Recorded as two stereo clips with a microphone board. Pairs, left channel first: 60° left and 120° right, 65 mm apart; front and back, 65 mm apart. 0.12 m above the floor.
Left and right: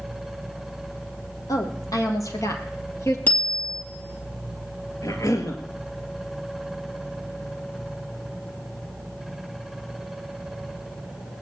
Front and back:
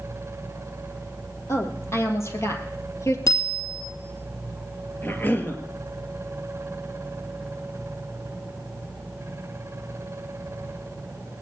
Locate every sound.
1.5 s a woman speaking: 40° left, 3 m; by 3.2 s 25° left, 2.5 m
3.3 s a bicycle bell: straight ahead, 2.5 m
5.0 s a cough: 55° left, 2 m